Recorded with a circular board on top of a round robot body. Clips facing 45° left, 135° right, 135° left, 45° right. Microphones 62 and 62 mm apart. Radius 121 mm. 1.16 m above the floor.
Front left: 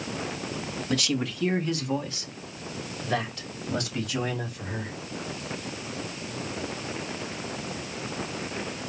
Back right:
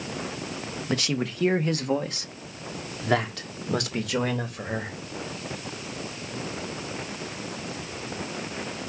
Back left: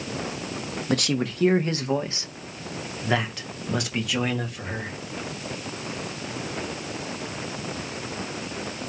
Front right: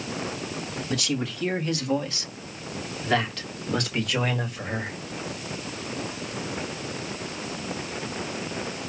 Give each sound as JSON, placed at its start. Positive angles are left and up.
{"t": 0.9, "sound": "a man speaking", "azimuth_deg": 165, "distance_m": 1.6}